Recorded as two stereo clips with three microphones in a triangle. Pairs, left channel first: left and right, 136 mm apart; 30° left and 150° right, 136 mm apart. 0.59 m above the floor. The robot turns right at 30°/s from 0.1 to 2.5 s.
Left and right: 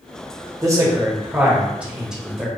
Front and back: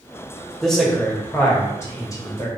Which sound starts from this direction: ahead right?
A man speaking, at 0.6 s.